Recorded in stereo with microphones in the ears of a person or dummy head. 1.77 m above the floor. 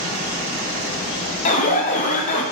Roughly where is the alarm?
Left.